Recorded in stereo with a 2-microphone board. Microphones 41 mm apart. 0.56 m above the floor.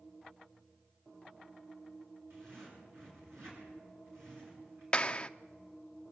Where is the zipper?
65° right (ahead or behind), 8.5 m.